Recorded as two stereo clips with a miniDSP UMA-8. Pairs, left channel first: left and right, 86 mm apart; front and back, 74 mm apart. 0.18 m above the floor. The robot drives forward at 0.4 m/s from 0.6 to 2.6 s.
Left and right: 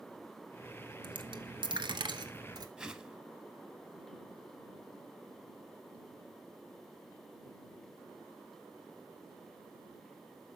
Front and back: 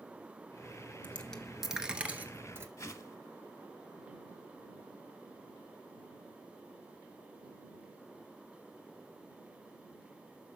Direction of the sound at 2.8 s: 15° right.